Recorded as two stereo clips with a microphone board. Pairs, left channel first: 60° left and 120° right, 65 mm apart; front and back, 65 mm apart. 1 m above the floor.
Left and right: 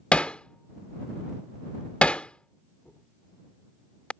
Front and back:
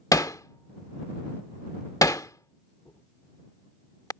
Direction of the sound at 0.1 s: 10° right.